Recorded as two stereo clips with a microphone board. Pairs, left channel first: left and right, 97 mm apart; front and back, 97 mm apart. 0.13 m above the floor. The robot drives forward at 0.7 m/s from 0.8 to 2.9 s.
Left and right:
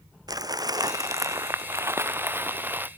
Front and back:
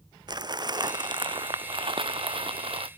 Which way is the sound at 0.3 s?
140° right.